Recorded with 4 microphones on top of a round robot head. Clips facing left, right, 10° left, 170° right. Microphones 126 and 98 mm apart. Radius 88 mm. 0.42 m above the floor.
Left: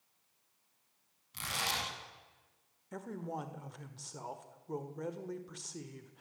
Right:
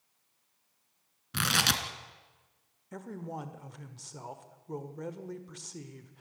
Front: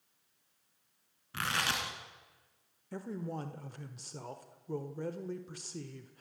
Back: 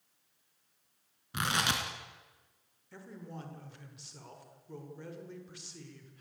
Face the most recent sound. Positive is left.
turn(degrees=0)